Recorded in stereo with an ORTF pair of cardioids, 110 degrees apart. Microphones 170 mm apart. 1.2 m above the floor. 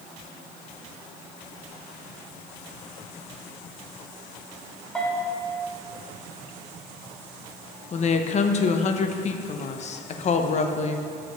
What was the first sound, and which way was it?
A bell, 10° left.